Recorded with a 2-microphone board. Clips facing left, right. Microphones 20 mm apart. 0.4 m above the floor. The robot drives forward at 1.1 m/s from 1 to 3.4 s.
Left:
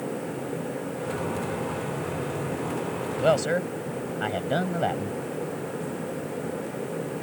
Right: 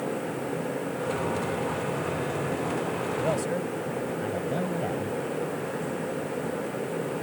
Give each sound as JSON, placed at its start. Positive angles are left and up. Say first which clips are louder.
{"t": 3.2, "sound": "a man speaking", "louder": "left 8 dB", "side_deg": 60}